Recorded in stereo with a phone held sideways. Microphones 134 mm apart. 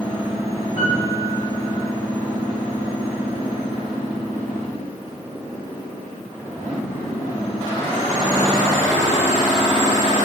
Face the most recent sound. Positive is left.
turn(degrees=45)  # may be behind; listen again after turning